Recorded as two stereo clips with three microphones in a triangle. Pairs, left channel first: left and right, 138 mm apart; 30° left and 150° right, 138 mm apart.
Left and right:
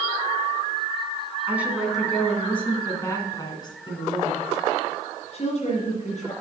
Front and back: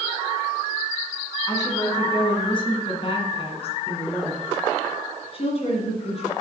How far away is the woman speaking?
About 2.0 m.